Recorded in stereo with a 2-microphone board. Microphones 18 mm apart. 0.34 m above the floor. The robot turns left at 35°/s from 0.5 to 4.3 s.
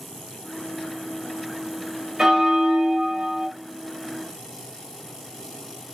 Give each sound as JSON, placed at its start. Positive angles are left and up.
{"t": 2.2, "sound": "a bell", "azimuth_deg": -55, "distance_m": 0.8}